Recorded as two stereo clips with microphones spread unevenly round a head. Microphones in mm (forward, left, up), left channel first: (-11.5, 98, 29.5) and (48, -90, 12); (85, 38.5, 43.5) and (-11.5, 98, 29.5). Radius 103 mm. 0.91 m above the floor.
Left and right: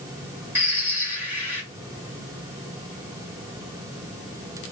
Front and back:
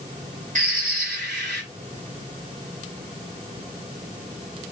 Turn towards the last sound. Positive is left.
turn(degrees=-155)